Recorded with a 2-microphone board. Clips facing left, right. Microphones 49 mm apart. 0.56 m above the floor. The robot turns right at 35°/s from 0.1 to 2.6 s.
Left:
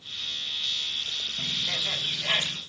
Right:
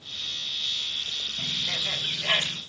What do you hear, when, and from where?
1.4 s a bird: straight behind, 1.8 m; by 2.6 s 135° right, 1.8 m